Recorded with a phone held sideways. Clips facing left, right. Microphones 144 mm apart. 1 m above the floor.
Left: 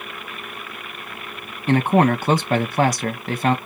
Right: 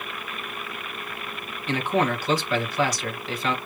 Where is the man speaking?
45° left (ahead or behind), 1.1 m.